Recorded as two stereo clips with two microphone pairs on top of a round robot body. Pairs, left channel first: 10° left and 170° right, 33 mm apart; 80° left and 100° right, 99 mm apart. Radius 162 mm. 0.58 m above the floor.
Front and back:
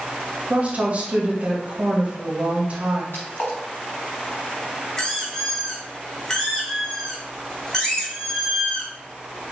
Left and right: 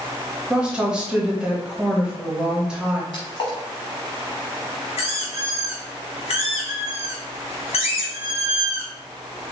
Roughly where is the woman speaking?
Behind.